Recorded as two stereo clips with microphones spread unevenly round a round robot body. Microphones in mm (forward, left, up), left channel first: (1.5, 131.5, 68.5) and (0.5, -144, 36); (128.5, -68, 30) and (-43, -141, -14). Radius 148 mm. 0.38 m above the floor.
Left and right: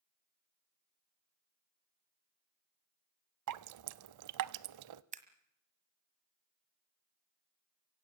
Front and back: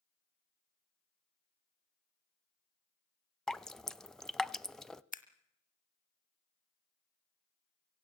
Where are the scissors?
30° right, 1.6 m.